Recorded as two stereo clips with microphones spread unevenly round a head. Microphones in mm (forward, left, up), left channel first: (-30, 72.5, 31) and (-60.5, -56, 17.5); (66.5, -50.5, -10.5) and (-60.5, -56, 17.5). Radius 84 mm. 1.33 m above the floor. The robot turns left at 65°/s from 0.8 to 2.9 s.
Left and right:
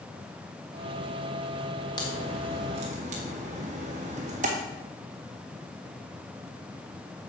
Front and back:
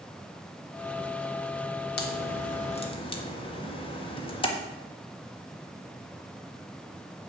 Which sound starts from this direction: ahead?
A crack, at 2.0 s.